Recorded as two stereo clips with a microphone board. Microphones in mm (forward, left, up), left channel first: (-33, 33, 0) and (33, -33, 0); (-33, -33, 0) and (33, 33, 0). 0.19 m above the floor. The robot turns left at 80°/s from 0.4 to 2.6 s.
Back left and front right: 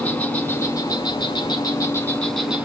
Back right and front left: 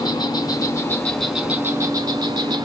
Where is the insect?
155° right, 0.8 m; by 2.6 s 30° left, 0.8 m.